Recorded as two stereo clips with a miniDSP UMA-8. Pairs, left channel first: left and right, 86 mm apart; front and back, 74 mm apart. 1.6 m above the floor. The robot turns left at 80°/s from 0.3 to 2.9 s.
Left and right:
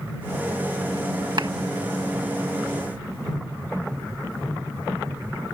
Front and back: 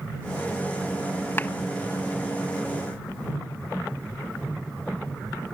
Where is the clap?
60° right; by 1.5 s 70° right.